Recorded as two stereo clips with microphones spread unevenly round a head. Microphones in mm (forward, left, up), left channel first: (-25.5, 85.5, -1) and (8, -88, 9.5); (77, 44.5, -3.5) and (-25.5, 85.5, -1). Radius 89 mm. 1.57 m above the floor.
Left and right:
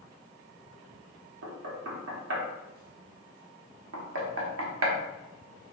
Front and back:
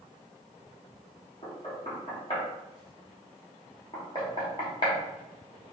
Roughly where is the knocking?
Right.